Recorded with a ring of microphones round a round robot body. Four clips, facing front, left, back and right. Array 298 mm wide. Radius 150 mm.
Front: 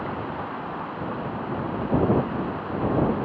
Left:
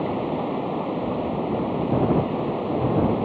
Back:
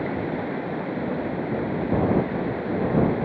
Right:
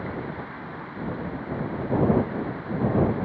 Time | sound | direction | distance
0.0 | running water | 120° left | ?